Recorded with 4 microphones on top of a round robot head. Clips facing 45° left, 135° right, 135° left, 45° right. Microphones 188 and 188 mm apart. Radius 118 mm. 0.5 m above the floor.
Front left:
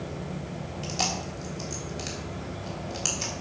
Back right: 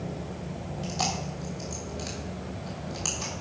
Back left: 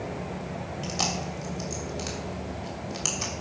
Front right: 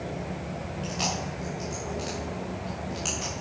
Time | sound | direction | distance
0.8 | chewing | 105° left | 3 m